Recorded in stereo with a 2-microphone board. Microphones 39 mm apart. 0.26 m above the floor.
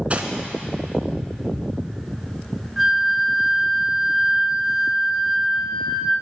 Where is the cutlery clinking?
35° right (ahead or behind), 1.5 m.